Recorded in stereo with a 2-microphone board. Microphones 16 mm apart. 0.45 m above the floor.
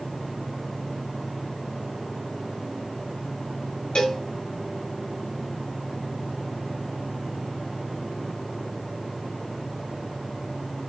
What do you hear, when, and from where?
4.0 s a cowbell: 70° left (ahead or behind), 1.7 m